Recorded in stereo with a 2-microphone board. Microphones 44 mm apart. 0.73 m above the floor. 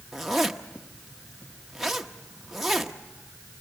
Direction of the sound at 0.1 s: 5° right (ahead or behind).